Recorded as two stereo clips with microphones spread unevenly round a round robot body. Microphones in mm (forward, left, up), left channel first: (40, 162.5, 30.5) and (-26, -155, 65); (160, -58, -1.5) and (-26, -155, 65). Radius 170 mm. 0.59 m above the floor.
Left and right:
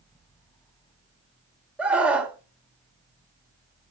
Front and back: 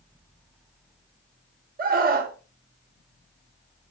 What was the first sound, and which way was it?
A scream, 165° left.